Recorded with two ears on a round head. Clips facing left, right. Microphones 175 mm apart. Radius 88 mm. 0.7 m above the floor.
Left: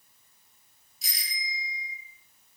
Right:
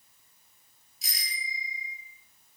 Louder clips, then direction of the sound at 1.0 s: Left 1 dB; centre (ahead or behind).